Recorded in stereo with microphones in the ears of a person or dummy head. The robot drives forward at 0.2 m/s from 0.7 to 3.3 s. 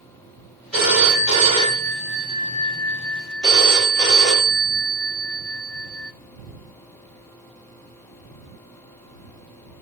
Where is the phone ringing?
5° left (ahead or behind), 1.9 m.